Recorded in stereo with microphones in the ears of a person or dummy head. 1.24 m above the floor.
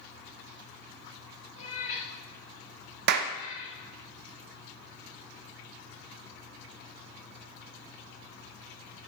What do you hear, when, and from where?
1.6 s a cat meowing: 35° left (ahead or behind), 2.5 m; by 3.8 s 45° left (ahead or behind), 4 m
3.1 s a clap: 55° right (ahead or behind), 0.7 m